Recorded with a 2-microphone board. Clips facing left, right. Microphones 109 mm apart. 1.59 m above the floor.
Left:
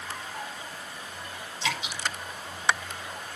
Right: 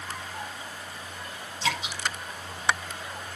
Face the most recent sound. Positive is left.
turn(degrees=-45)  # may be behind; listen again after turning